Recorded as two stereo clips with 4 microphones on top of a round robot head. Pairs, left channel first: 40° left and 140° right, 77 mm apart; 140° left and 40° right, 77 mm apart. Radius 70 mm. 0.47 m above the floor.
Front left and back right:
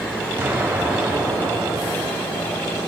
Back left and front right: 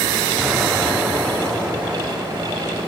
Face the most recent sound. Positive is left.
turn(degrees=-125)